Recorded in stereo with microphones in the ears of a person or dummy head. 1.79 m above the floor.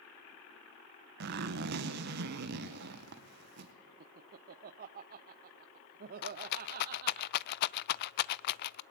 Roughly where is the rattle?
Left.